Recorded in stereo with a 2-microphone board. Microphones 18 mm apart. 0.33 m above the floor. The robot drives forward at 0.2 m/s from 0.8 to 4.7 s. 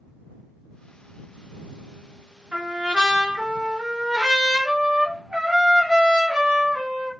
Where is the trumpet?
60° right (ahead or behind), 0.7 m; by 7.1 s 35° right (ahead or behind), 1.0 m.